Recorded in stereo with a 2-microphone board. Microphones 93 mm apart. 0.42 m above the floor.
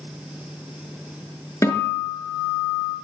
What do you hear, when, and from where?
1.6 s a guitar: 35° left (ahead or behind), 5 m